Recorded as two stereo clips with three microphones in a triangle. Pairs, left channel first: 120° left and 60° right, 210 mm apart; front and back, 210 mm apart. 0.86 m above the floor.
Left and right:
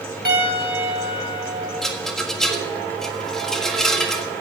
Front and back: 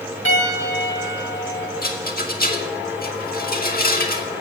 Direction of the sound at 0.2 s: 20° right.